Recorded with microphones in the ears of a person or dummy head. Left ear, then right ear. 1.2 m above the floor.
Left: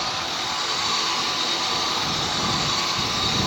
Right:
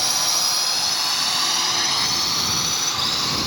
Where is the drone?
85° right; by 3.5 s 40° right (ahead or behind).